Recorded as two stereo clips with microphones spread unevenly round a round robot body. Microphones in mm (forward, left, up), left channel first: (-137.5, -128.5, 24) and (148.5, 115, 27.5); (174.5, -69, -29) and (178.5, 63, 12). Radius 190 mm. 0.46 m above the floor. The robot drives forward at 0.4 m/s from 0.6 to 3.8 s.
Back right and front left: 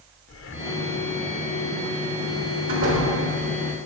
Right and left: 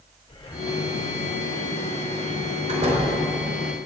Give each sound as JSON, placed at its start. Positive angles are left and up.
{"t": 0.3, "sound": "breathing", "azimuth_deg": -95, "distance_m": 1.2}
{"t": 2.7, "sound": "a door slam", "azimuth_deg": 100, "distance_m": 4.5}